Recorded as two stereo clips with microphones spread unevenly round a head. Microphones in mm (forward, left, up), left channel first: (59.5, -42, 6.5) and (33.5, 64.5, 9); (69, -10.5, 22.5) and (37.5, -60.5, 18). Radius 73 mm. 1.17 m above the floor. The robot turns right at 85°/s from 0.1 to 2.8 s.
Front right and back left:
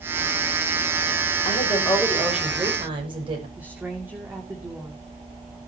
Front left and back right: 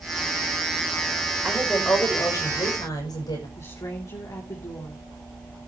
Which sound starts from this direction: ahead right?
A woman speaking, at 1.4 s.